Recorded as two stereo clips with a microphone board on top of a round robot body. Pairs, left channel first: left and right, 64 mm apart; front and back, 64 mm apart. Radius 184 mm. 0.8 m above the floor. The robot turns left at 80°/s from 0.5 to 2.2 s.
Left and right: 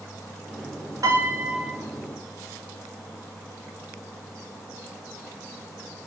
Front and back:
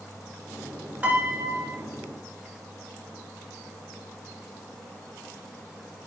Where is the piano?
115° right, 2.5 m; by 1.7 s 175° right, 2.5 m.